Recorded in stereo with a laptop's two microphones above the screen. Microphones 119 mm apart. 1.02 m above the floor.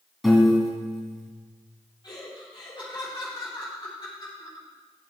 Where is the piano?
Centre (ahead or behind), 1.9 m.